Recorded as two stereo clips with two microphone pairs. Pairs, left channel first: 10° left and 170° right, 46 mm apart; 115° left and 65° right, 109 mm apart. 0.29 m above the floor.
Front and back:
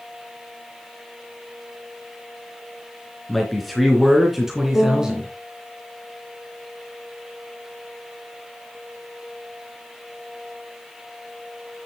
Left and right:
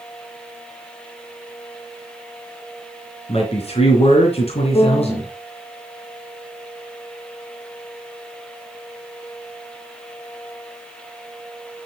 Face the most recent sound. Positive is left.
turn(degrees=60)